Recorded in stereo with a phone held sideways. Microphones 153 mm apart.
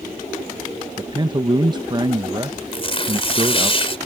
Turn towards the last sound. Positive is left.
turn(degrees=40)  # may be behind; listen again after turning